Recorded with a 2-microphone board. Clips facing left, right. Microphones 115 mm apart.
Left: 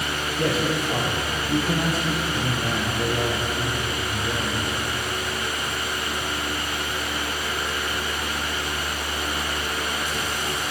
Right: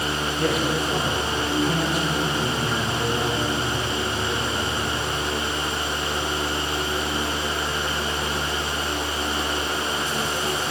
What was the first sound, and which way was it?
A man speaking, 35° left (ahead or behind).